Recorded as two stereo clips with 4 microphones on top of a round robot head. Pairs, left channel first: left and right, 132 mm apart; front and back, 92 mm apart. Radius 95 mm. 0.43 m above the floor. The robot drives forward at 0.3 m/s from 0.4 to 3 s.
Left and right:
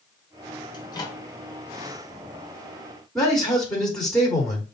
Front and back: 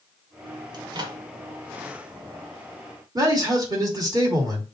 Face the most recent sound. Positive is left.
turn(degrees=175)